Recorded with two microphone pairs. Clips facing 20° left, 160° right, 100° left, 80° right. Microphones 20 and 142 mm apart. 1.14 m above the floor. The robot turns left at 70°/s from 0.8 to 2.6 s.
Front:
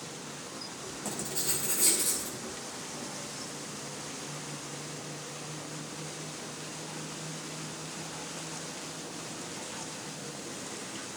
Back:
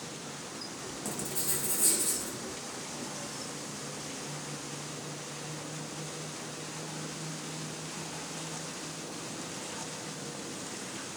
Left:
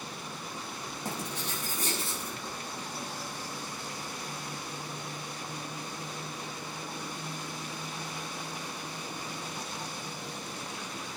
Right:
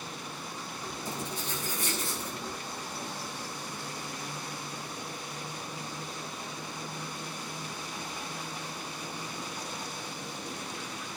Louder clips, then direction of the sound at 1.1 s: Front 2 dB, left 1 dB; 105° left.